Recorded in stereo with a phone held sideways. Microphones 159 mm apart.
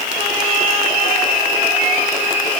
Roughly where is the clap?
I don't hear a clap.